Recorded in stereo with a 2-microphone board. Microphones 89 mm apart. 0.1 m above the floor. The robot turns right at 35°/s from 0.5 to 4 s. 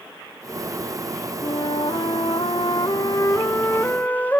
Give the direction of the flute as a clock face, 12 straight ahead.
10 o'clock.